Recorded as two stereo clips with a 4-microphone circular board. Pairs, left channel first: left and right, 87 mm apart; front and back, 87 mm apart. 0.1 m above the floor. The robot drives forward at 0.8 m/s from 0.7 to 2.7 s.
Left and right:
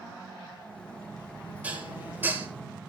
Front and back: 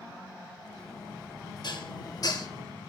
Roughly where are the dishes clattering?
Ahead.